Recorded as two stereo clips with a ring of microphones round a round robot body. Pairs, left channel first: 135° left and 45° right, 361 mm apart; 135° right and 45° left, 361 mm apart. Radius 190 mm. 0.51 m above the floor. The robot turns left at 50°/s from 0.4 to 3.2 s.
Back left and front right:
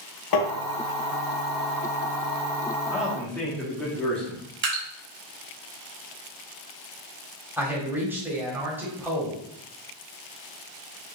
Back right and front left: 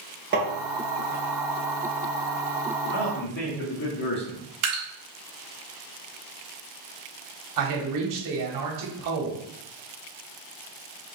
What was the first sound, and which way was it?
Tapping, 110° left.